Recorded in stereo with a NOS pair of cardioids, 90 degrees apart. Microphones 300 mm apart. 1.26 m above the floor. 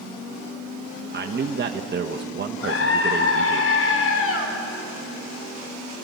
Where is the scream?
50° left, 4.5 m.